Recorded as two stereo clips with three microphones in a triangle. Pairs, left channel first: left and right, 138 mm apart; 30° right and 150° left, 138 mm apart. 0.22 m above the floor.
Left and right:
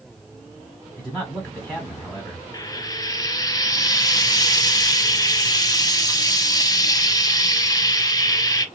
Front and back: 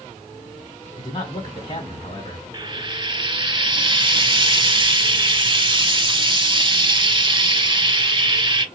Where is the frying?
130° left, 0.6 m.